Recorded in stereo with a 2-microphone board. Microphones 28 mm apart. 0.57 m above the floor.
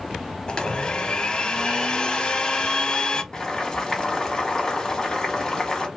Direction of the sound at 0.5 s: 35° left (ahead or behind).